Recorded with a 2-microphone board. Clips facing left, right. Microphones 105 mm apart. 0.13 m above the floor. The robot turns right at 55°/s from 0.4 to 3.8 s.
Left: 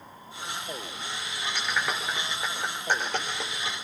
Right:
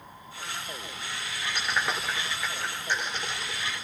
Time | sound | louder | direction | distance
1.6 | a clap | even | 15° right (ahead or behind) | 8.5 m